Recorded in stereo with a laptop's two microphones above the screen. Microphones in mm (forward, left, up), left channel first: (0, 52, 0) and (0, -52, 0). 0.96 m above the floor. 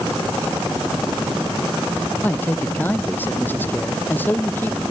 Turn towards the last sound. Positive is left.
turn(degrees=15)  # may be behind; listen again after turning